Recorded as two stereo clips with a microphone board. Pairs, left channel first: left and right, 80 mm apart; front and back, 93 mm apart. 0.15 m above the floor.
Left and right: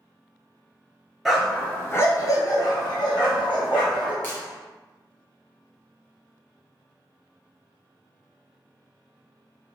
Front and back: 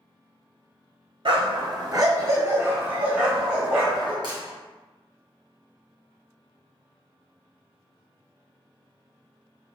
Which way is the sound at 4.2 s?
150° left.